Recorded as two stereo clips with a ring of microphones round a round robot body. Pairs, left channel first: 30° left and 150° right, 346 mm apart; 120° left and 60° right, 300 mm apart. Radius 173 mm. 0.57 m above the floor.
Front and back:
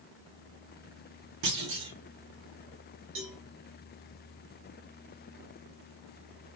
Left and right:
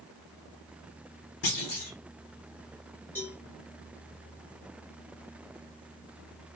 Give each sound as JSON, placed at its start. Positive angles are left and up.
{"t": 1.4, "sound": "a clunk", "azimuth_deg": 170, "distance_m": 1.1}
{"t": 3.1, "sound": "a cowbell", "azimuth_deg": -160, "distance_m": 1.1}